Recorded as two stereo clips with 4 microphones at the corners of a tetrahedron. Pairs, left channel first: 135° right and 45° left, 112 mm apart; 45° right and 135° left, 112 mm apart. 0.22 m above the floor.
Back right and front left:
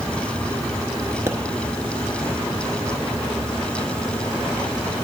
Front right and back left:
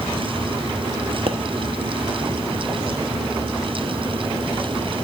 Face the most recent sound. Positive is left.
turn(degrees=110)